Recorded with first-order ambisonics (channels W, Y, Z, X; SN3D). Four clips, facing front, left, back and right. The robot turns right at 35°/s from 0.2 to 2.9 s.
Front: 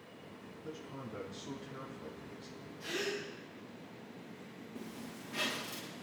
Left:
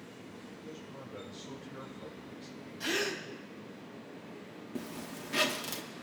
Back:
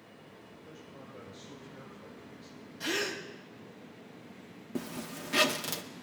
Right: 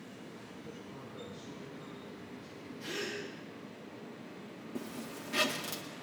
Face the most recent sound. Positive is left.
turn(degrees=170)